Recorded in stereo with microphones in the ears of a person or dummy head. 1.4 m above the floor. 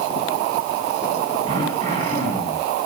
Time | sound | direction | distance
1.5 | throat clearing | 40° right (ahead or behind) | 5.5 m